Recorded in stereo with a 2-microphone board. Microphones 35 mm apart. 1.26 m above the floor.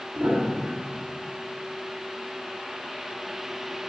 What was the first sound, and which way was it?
A piano, 70° right (ahead or behind).